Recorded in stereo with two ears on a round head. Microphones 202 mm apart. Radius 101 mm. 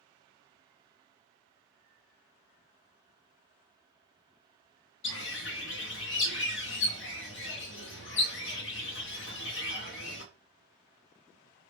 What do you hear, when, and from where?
5.0 s a bird: 55° left (ahead or behind), 0.8 m